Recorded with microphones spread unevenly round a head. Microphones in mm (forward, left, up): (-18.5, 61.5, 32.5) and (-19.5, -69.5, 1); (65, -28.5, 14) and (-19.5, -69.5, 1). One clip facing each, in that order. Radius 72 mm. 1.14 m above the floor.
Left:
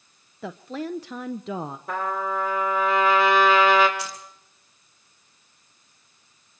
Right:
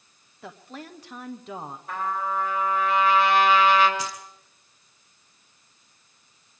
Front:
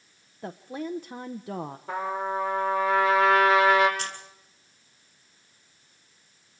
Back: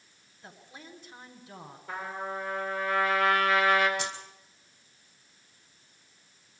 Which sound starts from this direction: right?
Keys jangling, at 4.0 s.